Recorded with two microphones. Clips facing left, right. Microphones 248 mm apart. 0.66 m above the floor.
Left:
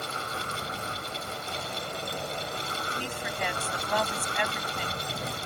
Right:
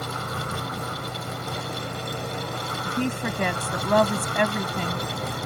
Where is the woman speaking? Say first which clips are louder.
Right 14 dB; 65° right (ahead or behind).